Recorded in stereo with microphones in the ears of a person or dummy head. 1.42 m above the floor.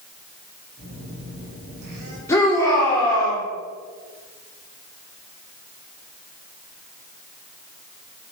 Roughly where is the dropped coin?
No dropped coin in this recording.